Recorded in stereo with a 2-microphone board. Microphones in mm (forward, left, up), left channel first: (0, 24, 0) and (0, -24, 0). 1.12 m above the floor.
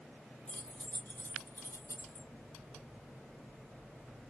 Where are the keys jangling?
20° left (ahead or behind), 0.8 m; by 2.3 s 85° left, 0.9 m.